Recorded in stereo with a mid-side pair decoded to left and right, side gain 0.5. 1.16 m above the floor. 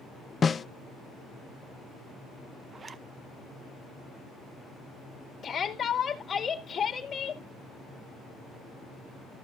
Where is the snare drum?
35° left, 0.6 m.